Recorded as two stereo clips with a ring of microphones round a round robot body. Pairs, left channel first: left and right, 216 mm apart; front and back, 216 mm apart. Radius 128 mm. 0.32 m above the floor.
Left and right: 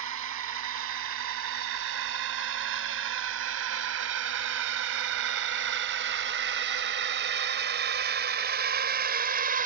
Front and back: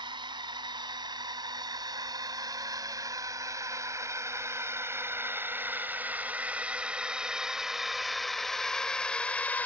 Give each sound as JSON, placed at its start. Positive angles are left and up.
{"t": 0.0, "sound": "a drone", "azimuth_deg": -110}